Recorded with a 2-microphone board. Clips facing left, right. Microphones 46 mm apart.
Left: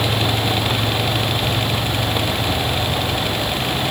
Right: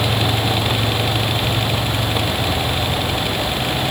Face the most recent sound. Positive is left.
No sound to turn to.